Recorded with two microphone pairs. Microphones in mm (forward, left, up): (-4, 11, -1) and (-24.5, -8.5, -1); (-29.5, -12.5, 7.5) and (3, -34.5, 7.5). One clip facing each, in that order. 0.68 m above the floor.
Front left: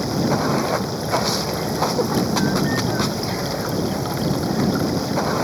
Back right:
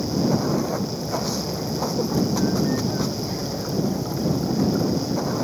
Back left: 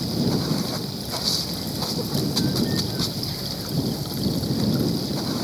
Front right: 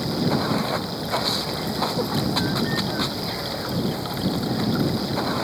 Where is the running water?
20° left.